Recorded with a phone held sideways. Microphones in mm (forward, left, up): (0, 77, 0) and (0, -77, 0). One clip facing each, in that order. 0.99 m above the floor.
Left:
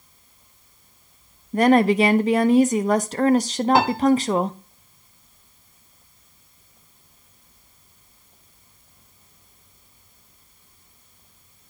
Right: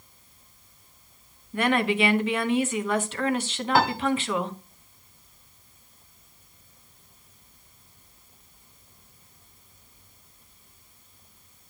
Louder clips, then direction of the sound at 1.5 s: Left 8 dB; 40° left (ahead or behind).